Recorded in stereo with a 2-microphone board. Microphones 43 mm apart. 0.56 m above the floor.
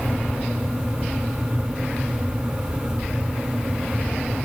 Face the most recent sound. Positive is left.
No sound to turn to.